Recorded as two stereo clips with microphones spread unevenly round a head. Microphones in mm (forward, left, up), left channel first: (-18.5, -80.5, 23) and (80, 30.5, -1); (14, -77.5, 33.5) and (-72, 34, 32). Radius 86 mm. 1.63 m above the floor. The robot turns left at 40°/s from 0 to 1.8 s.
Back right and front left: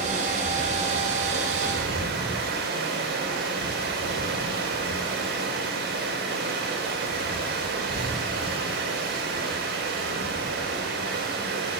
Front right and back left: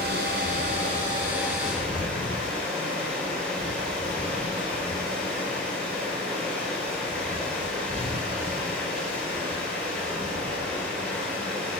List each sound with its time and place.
0.0 s running water: 105° left, 5 m; by 11.8 s 30° left, 5 m